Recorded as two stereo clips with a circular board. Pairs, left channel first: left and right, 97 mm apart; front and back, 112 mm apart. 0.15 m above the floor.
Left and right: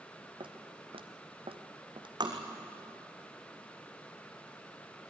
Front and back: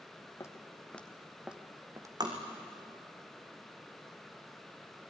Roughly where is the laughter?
I don't hear laughter.